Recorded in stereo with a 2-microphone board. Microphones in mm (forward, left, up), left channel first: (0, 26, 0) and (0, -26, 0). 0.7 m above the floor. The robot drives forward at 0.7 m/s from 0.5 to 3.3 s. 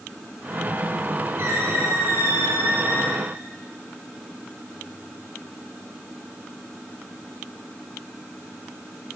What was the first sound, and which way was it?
A squeak, 60° right (ahead or behind).